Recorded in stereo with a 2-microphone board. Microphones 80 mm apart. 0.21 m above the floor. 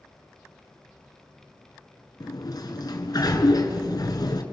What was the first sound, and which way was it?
A sliding door, 55° left (ahead or behind).